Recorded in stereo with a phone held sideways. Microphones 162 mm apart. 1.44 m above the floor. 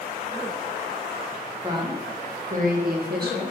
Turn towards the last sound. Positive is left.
turn(degrees=-80)